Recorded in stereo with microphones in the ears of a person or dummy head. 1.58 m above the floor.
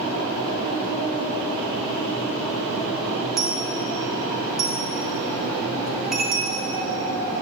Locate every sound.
3.4 s a dropped coin: 5° left (ahead or behind), 1.3 m